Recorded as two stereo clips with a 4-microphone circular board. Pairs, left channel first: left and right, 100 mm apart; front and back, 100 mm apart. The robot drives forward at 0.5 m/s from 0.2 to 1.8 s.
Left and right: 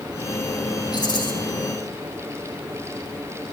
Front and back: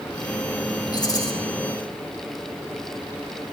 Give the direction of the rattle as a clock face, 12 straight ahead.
10 o'clock.